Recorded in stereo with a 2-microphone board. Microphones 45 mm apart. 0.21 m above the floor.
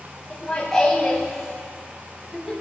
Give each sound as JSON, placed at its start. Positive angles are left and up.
{"t": 0.3, "sound": "laughter", "side_deg": 15, "distance_m": 1.4}